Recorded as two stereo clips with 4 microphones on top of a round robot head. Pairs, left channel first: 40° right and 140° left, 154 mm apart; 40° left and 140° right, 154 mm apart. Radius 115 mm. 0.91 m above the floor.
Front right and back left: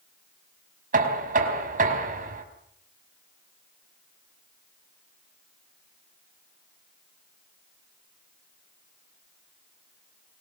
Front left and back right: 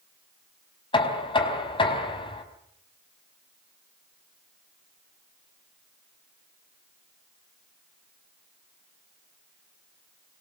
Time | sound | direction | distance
0.9 | knocking | 100° left | 4.5 m